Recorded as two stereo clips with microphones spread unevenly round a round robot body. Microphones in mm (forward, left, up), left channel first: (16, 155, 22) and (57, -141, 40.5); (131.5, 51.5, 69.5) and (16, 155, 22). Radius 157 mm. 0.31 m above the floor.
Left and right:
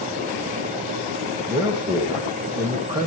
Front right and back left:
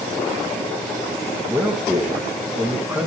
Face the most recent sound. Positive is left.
turn(degrees=-155)